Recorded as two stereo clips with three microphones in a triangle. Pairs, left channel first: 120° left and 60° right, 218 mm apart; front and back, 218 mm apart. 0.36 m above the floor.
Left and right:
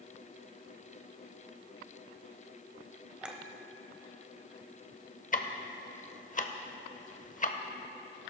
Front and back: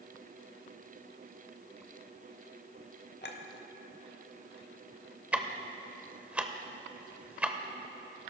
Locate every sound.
3.2 s a clink: 25° left, 0.9 m
5.3 s ticking: 100° left, 0.7 m